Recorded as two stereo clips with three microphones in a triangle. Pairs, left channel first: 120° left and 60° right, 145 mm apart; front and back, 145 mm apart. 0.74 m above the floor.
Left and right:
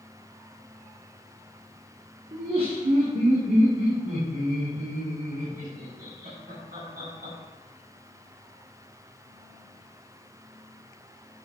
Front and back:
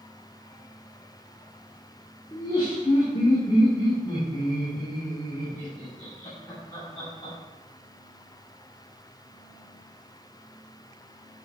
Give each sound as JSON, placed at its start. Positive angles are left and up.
{"t": 2.3, "sound": "laughter", "azimuth_deg": -55, "distance_m": 2.5}